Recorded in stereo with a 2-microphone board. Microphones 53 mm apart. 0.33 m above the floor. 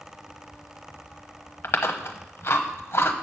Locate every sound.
1.6 s chewing: 55° left (ahead or behind), 1.1 m